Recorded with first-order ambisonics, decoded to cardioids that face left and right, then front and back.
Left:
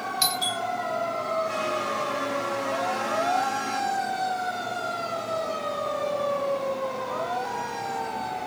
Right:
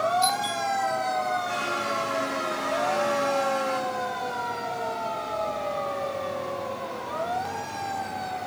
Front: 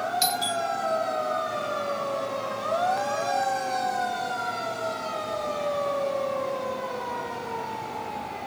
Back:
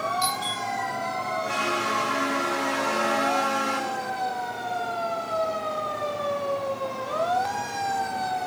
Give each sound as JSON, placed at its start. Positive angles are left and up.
{"t": 0.2, "sound": "a doorbell", "azimuth_deg": 60, "distance_m": 3.5}